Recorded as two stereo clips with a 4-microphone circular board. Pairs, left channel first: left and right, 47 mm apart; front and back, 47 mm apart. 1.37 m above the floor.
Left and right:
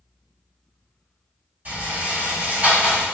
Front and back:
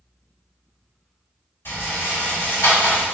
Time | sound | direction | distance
1.6 | a rattle | 30° right | 1.8 m